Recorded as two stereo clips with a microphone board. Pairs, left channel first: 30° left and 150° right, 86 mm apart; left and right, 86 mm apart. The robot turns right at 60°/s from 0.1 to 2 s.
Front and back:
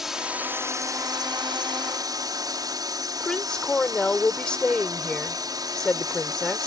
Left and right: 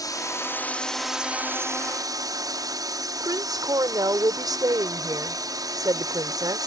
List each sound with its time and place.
0.0 s a drone: 125° left; by 6.7 s 120° right
3.2 s a woman speaking: 50° right